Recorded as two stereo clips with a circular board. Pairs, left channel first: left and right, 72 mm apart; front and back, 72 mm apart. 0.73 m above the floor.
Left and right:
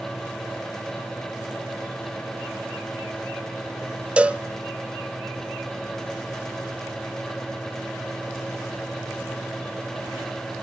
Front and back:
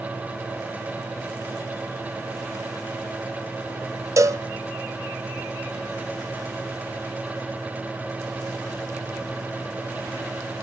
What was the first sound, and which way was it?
A cowbell, 160° right.